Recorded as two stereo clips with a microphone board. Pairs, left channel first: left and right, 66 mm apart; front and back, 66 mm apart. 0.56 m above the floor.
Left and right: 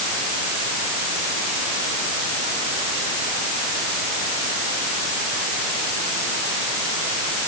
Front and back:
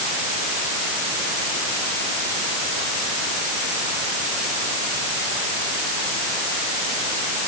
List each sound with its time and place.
Only background noise.